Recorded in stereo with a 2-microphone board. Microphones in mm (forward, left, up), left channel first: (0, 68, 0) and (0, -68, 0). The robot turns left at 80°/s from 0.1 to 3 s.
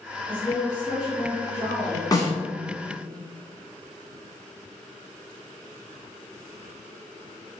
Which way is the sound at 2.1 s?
30° left (ahead or behind).